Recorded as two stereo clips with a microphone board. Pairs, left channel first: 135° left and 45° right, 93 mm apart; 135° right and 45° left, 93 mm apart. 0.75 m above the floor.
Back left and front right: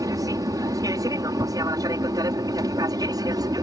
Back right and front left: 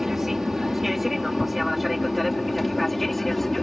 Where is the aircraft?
40° right; by 3.6 s 50° right.